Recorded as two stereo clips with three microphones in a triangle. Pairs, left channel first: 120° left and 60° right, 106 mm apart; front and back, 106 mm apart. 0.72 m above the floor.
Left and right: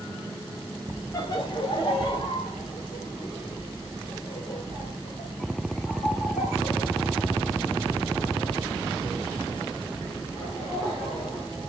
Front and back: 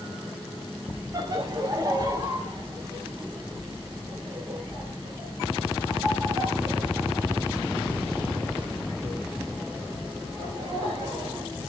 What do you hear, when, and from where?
1.1 s laughter: 155° left, 0.8 m; by 11.5 s 125° left, 8 m